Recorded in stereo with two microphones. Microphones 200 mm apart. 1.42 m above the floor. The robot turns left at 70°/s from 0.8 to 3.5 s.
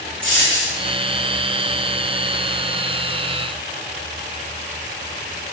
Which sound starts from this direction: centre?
A dropped coin, at 0.2 s.